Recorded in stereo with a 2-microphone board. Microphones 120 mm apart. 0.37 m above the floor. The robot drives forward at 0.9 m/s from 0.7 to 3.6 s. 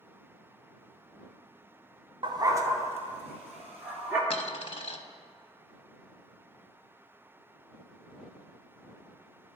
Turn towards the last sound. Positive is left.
turn(degrees=50)  # may be behind; listen again after turning